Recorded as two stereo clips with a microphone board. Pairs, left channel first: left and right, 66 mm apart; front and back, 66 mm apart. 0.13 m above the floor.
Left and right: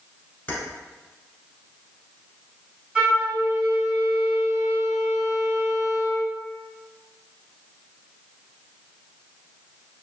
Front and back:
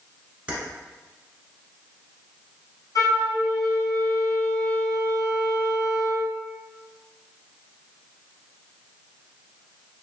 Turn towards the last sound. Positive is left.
turn(degrees=-20)